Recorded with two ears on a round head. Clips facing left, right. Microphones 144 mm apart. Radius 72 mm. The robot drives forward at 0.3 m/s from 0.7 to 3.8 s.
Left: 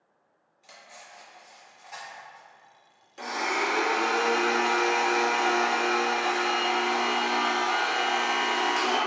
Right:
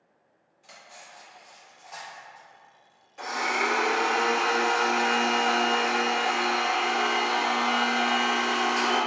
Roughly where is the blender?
Left.